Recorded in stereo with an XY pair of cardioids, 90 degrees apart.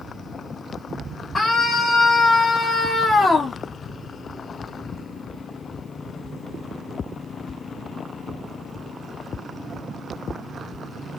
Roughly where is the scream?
Ahead left.